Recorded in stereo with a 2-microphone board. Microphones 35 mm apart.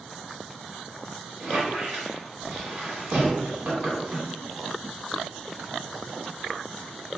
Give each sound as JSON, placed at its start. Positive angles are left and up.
{"t": 1.4, "sound": "a squeak", "side_deg": -45, "distance_m": 1.3}